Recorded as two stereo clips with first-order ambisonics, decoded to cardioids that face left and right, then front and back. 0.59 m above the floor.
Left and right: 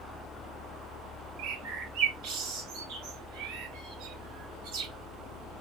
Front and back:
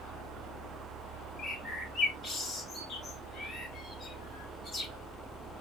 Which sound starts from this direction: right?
A bird, at 1.4 s.